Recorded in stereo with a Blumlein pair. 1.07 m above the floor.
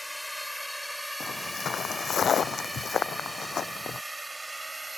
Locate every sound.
0.0 s a drone: straight ahead; by 5.0 s 10° right
1.2 s footsteps: 25° left